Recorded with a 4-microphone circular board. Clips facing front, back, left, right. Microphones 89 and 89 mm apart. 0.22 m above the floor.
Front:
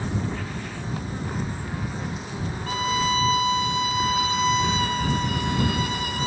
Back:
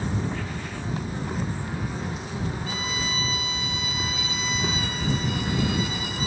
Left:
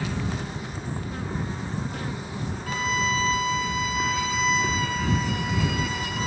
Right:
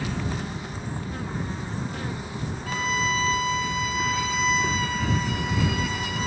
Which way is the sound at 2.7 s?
Straight ahead.